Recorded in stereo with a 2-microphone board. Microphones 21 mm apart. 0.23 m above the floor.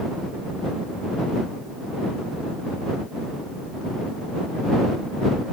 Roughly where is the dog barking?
No dog barking in this recording.